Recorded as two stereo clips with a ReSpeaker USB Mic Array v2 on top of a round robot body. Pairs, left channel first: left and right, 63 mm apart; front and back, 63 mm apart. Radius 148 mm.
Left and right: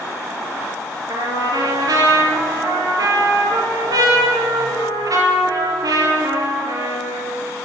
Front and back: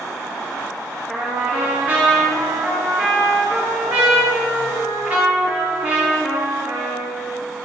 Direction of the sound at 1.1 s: 115° right.